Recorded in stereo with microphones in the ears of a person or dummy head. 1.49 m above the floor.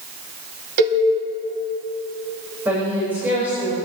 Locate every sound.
0.8 s a cowbell: 45° right (ahead or behind), 2 m
2.6 s a woman speaking: 10° right (ahead or behind), 5.5 m